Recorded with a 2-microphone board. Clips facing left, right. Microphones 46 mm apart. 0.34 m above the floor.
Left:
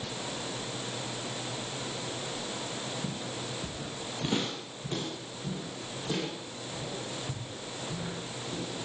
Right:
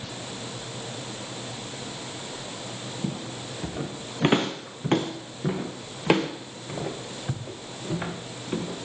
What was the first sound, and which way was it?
Footsteps, 40° right (ahead or behind).